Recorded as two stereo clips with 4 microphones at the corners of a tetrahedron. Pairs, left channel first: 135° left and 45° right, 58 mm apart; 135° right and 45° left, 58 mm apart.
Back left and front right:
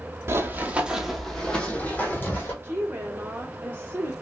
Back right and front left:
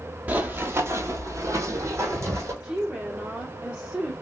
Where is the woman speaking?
20° right, 1.0 m.